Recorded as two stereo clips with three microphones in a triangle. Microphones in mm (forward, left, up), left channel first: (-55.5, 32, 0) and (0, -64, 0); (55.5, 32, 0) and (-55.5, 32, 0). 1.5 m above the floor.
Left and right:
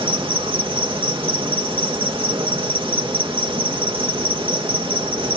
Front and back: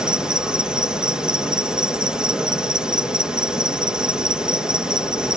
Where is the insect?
100° right.